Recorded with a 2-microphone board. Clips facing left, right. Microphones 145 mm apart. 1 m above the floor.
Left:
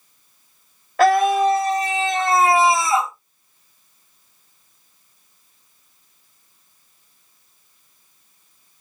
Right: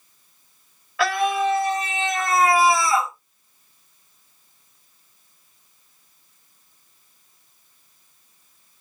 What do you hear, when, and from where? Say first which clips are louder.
1.0 s a scream: left 6 dB; 45° left (ahead or behind), 2.5 m; by 3.1 s 20° left (ahead or behind), 3 m